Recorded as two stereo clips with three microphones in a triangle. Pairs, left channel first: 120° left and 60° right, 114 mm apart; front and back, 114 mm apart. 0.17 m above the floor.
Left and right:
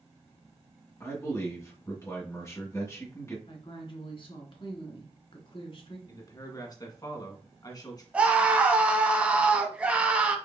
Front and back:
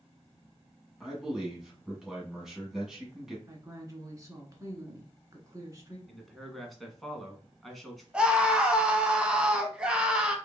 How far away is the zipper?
I don't hear a zipper.